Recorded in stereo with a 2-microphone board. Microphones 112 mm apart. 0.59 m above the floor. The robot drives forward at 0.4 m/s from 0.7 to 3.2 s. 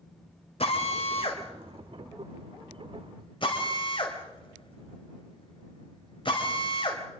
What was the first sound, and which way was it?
A drill, 60° left (ahead or behind).